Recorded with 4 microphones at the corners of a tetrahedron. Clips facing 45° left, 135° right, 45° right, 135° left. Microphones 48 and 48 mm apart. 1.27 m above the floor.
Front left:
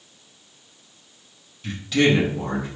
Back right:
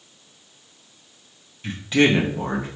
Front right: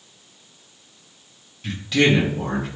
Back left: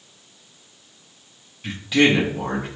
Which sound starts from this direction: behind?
A man speaking, at 1.6 s.